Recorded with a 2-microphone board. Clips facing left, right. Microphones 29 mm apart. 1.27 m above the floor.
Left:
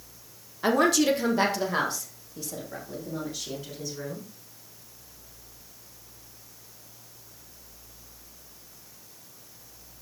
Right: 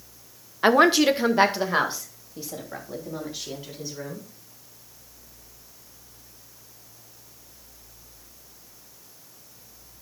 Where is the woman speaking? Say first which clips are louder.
Right 5 dB; 35° right (ahead or behind), 0.8 m; by 4.2 s 20° right (ahead or behind), 4.5 m.